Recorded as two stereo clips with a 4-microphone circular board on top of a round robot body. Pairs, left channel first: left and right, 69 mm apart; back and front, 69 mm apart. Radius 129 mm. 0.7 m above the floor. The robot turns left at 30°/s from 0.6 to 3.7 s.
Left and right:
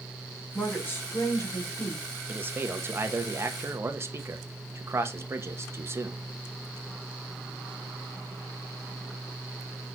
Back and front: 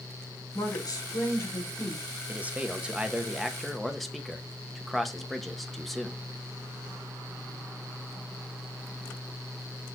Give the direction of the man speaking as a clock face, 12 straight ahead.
2 o'clock.